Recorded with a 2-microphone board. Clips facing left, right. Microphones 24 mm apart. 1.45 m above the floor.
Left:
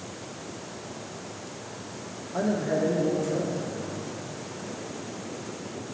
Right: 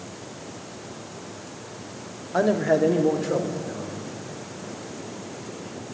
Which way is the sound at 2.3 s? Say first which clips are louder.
Right 6 dB; 40° right (ahead or behind).